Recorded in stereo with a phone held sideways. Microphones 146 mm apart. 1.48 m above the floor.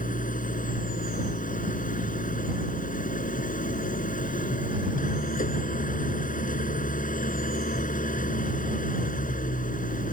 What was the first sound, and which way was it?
An engine running, 65° left (ahead or behind).